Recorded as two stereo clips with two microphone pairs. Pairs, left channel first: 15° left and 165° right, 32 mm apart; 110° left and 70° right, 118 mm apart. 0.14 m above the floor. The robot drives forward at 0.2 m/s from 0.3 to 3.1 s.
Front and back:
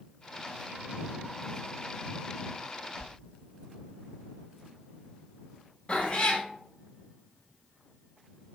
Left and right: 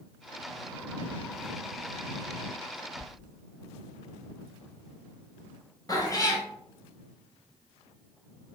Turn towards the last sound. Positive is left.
turn(degrees=60)